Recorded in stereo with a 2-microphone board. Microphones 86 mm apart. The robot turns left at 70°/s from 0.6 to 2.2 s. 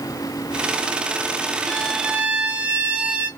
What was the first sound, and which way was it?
A violin, 15° left.